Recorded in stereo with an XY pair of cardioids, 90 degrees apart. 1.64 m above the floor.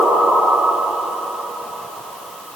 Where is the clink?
I don't hear a clink.